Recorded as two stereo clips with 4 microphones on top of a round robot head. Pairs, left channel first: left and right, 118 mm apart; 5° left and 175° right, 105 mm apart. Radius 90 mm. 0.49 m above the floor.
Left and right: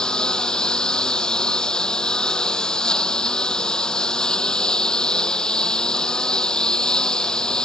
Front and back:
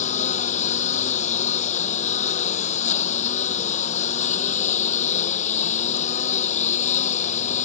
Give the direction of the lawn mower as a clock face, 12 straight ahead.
12 o'clock.